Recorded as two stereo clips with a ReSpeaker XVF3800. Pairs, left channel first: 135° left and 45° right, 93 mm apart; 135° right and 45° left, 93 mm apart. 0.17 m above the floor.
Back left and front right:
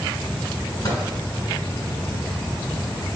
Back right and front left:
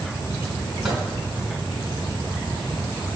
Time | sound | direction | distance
0.8 | a microwave | 130° left | 1.8 m